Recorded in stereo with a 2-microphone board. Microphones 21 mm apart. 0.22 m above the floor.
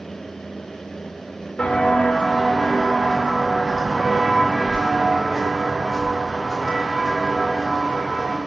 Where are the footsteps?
70° left (ahead or behind), 1.4 m; by 8.4 s 35° right (ahead or behind), 3.5 m.